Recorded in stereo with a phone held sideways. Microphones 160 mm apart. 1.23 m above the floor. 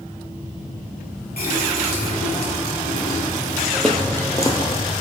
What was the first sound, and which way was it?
A running tap, 80° left.